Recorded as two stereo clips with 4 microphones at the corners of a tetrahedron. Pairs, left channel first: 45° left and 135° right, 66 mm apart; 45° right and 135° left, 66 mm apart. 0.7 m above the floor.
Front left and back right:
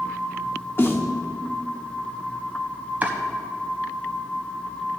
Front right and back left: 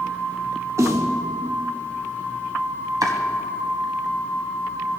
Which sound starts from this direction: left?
A snare drum, at 0.8 s.